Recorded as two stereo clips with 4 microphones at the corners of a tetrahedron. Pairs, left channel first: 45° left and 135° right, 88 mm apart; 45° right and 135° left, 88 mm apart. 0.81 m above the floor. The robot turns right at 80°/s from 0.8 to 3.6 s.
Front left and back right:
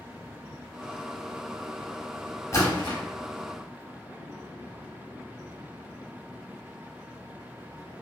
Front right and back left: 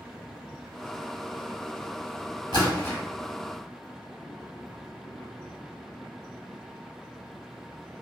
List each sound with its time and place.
2.5 s a splash: 15° right, 1.0 m; by 3.0 s 25° left, 1.0 m